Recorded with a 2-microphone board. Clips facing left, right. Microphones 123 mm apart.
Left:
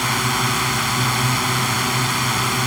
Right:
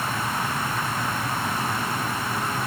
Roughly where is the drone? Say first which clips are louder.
Left 5 dB; left.